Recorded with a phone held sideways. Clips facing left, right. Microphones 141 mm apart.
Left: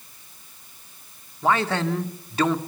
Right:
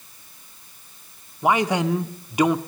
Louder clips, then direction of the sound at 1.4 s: Right 2 dB; 15° right (ahead or behind).